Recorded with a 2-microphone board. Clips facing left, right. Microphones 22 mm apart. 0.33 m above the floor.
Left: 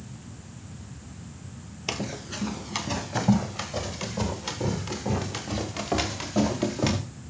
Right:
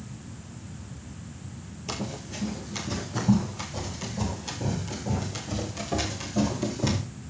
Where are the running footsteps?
50° left (ahead or behind), 4 m; by 7.0 s 80° left, 4 m.